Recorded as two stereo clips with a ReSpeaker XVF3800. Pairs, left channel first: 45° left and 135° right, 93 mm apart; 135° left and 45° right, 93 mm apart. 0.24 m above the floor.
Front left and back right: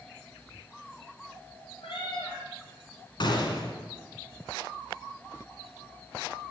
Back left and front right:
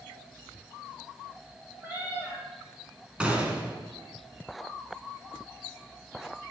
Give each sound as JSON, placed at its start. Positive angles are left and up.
{"t": 1.8, "sound": "a cat meowing", "azimuth_deg": 25, "distance_m": 4.5}
{"t": 3.2, "sound": "a gunshot", "azimuth_deg": 30, "distance_m": 2.0}